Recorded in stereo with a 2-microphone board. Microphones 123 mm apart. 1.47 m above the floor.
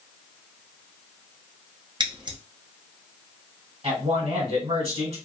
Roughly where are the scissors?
Right.